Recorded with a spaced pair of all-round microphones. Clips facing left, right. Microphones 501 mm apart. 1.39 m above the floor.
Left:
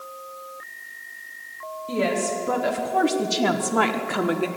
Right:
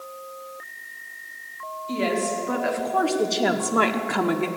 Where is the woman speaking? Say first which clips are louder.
Left 1 dB; 70° left (ahead or behind), 1.4 m; by 4.5 s 25° right (ahead or behind), 0.9 m.